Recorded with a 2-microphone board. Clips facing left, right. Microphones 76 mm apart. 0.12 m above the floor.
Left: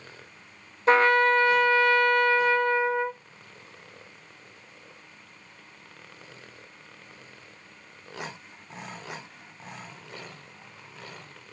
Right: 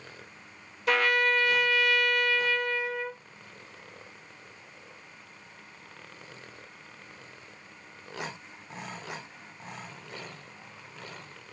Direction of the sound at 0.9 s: 30° left (ahead or behind).